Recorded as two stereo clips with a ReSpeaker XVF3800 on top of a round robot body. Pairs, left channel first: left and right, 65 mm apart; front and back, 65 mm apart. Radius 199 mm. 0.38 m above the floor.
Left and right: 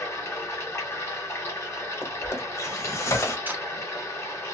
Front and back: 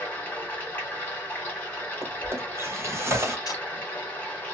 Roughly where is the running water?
Ahead left.